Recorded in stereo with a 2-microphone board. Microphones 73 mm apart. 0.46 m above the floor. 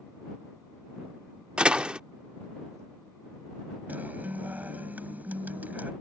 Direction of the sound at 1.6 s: 15° right (ahead or behind).